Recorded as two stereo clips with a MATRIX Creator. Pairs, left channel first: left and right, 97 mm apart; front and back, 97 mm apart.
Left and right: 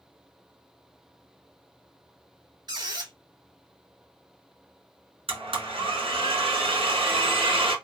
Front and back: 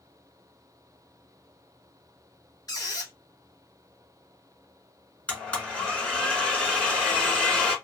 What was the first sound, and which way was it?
A squeak, 50° right.